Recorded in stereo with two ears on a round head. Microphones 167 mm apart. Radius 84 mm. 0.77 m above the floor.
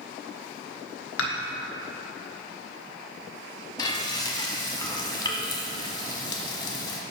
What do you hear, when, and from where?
1.2 s dishes clattering: 75° left (ahead or behind), 1.2 m
3.8 s frying: 25° left (ahead or behind), 1.1 m